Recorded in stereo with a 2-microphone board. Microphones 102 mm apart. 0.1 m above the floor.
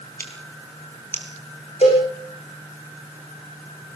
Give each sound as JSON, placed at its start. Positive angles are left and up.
{"t": 0.2, "sound": "scissors", "side_deg": 20, "distance_m": 3.0}
{"t": 1.8, "sound": "a cowbell", "side_deg": 75, "distance_m": 7.0}